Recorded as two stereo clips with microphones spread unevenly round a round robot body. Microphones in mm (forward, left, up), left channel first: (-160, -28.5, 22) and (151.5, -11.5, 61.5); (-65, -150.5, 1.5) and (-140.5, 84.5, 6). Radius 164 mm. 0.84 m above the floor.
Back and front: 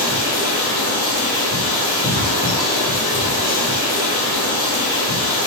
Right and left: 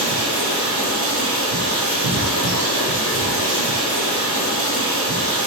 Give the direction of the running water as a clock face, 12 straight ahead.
10 o'clock.